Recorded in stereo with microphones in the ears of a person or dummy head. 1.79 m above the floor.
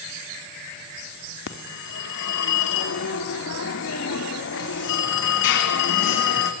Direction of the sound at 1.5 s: 70° left (ahead or behind).